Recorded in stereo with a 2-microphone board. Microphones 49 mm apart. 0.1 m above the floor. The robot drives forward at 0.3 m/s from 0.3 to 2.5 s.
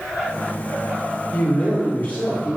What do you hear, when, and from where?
1.3 s a man speaking: 40° left (ahead or behind), 2.5 m